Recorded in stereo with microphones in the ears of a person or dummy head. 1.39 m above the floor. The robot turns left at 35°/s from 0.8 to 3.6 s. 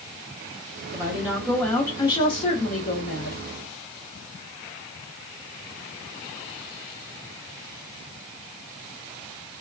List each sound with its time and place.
0.9 s a woman speaking: 160° right, 0.8 m; by 3.4 s 115° left, 0.8 m